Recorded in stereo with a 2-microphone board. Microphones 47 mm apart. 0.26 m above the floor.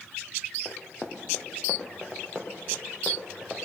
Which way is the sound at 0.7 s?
45° left (ahead or behind).